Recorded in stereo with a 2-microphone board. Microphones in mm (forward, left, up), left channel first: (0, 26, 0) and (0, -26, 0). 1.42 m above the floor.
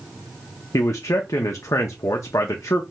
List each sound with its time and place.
0.7 s a man speaking: 75° left (ahead or behind), 0.5 m